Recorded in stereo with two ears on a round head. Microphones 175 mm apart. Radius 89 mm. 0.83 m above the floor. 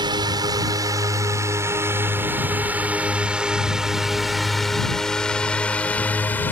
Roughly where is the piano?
I don't hear a piano.